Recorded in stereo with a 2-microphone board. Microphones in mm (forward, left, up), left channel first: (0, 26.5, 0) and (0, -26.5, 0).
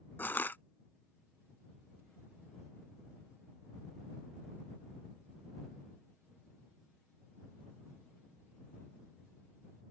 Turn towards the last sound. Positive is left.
turn(degrees=40)  # may be behind; listen again after turning